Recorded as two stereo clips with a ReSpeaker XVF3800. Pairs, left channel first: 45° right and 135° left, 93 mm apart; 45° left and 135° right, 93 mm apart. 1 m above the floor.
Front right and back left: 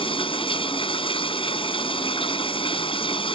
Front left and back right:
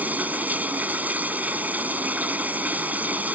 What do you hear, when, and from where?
0.0 s running water: 60° right